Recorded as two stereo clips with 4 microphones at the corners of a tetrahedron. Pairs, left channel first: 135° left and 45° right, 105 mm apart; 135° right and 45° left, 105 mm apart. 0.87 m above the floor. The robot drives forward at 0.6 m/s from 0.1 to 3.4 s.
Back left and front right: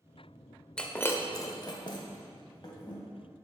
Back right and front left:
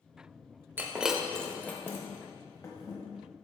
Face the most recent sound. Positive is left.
turn(degrees=175)